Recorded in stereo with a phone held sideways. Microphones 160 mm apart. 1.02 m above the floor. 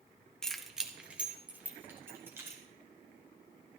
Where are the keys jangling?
5° left (ahead or behind), 0.9 m; by 2.6 s 15° right (ahead or behind), 3 m.